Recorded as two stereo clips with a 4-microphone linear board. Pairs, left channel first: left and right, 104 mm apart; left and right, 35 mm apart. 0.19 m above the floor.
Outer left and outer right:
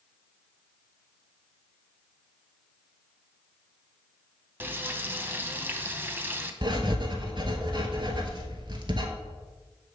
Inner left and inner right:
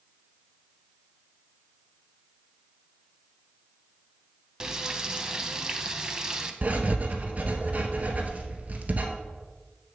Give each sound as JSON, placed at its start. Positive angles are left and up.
{"t": 4.6, "sound": "frying", "side_deg": -20, "distance_m": 0.7}
{"t": 6.6, "sound": "writing", "side_deg": -45, "distance_m": 1.0}